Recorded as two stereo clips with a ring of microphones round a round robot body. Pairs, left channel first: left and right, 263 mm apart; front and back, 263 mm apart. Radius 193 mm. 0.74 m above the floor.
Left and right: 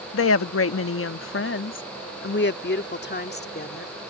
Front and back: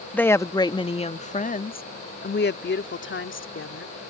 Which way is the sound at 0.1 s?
85° left.